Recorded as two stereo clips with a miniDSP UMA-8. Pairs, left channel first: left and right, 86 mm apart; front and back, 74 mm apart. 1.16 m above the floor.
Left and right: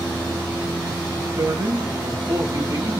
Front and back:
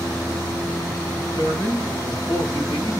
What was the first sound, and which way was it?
A man speaking, 40° right.